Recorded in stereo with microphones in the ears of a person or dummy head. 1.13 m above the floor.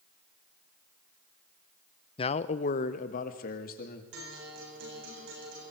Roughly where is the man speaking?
Left.